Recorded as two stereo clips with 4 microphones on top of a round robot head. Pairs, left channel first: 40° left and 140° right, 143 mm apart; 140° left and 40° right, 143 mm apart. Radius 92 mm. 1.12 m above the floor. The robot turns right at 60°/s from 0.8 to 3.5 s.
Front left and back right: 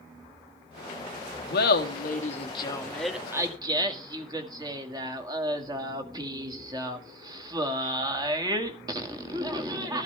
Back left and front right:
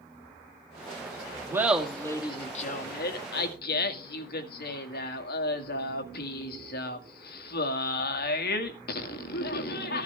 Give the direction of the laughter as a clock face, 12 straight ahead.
11 o'clock.